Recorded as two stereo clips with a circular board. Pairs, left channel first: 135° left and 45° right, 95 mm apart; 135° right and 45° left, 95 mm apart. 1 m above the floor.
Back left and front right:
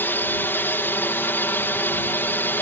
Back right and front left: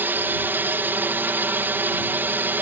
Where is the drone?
90° left.